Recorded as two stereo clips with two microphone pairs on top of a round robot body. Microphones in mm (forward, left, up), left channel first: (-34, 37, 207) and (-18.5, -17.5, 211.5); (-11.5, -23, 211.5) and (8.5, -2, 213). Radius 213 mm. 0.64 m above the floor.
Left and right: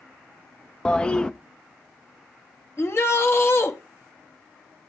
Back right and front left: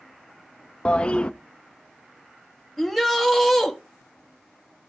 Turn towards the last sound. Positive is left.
turn(degrees=140)